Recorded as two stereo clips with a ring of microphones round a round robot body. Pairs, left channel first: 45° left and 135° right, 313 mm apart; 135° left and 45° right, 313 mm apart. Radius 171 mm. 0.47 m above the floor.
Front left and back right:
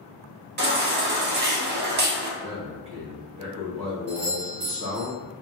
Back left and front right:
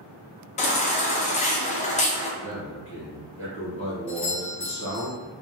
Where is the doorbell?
140° right, 1.7 m.